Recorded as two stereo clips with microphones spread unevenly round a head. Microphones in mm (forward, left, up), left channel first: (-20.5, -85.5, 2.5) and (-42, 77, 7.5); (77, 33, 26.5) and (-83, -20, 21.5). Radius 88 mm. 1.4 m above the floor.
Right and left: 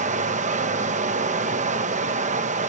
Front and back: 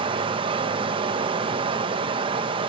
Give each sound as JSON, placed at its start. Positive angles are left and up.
{"t": 0.0, "sound": "running water", "azimuth_deg": 135, "distance_m": 0.9}